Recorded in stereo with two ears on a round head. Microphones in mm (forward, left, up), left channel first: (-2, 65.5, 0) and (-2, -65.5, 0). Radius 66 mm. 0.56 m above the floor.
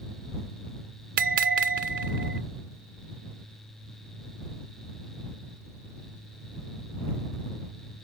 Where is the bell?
60° right (ahead or behind).